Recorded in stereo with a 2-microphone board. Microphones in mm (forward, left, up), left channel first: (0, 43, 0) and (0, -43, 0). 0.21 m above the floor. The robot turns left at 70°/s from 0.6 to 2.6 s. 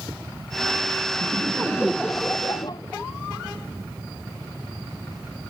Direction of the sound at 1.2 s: 130° right.